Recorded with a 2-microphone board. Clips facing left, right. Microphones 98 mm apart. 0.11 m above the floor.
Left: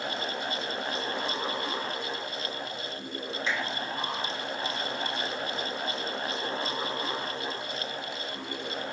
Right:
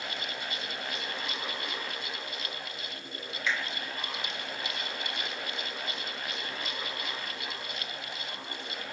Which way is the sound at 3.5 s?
30° left (ahead or behind).